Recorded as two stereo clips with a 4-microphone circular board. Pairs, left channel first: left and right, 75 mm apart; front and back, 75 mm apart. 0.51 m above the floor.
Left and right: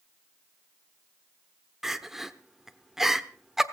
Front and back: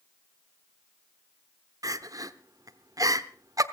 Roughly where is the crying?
Behind.